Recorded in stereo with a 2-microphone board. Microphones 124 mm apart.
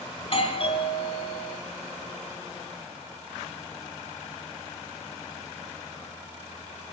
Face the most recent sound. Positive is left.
turn(degrees=45)  # may be behind; listen again after turning